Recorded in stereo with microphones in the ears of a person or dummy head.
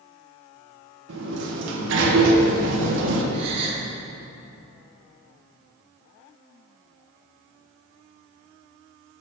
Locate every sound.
1.1 s a sliding door: 75° right (ahead or behind), 1.3 m
3.3 s a gasp: 35° right (ahead or behind), 1.7 m